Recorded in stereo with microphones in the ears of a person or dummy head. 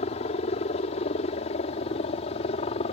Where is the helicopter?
40° left (ahead or behind); by 2.9 s 35° left (ahead or behind).